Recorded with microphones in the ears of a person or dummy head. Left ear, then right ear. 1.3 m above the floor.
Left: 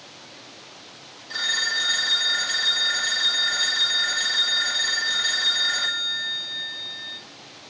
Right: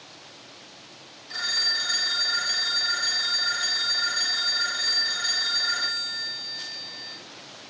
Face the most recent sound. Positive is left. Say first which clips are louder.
# left 1 dB
turn(degrees=10)  # may be behind; listen again after turning